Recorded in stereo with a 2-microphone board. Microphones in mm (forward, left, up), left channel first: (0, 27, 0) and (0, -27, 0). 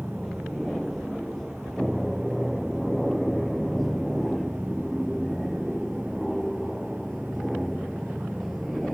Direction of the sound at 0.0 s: 5° left (ahead or behind).